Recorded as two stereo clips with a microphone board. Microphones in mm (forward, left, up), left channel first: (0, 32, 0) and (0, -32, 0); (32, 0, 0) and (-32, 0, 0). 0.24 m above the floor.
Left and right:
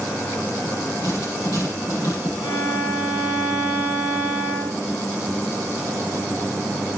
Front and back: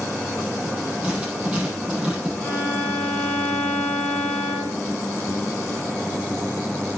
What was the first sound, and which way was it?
Writing, 105° left.